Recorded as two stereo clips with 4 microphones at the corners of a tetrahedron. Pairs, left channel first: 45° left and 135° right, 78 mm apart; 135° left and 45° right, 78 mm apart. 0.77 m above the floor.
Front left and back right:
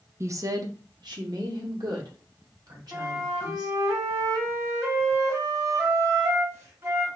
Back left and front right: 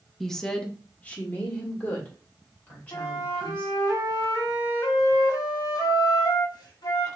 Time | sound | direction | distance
0.2 | a woman speaking | 140° right | 0.6 m
2.9 | a flute | 170° left | 1.5 m